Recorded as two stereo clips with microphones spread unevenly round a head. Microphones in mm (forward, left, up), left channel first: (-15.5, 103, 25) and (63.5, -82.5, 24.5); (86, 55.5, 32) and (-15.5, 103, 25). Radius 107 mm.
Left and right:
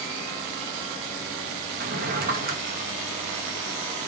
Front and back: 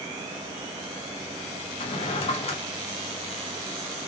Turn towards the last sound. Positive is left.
turn(degrees=-35)